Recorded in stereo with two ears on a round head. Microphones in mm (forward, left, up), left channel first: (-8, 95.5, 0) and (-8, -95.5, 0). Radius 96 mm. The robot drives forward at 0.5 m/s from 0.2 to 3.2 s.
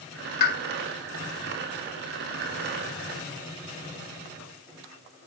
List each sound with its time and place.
0.4 s a pop: 50° left (ahead or behind), 1.3 m; by 0.6 s 45° left (ahead or behind), 1.3 m